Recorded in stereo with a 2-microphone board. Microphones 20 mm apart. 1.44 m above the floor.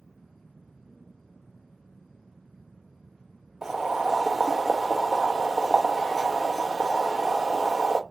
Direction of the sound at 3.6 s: 10° right (ahead or behind).